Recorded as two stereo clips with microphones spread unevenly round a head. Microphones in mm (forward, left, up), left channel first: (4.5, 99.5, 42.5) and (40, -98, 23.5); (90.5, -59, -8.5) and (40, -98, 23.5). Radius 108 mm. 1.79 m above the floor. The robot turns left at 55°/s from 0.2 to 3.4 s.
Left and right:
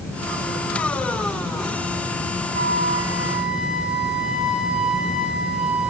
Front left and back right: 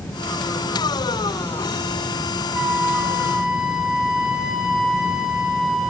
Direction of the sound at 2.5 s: 120° right.